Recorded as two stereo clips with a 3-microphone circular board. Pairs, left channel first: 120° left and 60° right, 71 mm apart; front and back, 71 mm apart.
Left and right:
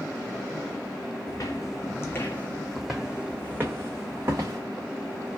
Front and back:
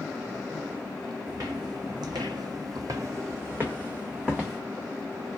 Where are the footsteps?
150° left, 1.0 m; by 4.6 s 100° right, 1.2 m.